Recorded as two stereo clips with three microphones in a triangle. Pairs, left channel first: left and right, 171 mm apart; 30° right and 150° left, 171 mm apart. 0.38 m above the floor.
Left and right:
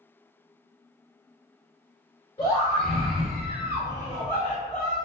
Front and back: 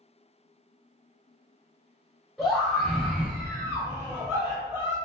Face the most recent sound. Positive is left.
turn(degrees=-140)